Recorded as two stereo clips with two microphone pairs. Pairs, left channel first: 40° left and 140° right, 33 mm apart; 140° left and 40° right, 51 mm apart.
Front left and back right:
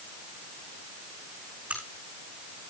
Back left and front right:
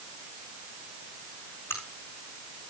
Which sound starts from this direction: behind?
A crack, at 1.7 s.